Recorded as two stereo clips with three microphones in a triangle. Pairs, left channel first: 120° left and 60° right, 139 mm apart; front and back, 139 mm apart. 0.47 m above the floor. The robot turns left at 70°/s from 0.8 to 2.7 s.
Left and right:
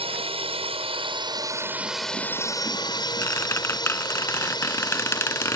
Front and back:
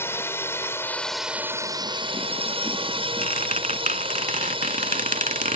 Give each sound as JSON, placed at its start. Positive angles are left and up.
{"t": 0.0, "sound": "a drone", "azimuth_deg": -65}
{"t": 3.2, "sound": "a squeak", "azimuth_deg": -170}